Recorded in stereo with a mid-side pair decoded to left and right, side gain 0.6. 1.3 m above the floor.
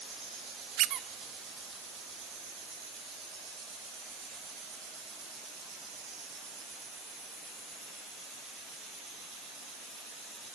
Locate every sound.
0.8 s a squeak: 70° right, 0.8 m